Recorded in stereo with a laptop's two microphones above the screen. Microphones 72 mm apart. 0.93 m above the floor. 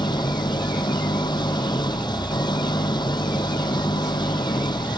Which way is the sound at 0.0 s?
85° left.